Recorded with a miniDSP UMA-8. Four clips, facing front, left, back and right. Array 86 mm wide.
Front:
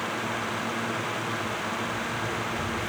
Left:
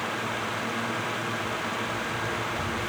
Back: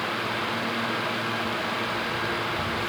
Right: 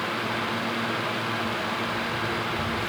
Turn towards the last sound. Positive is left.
turn(degrees=-160)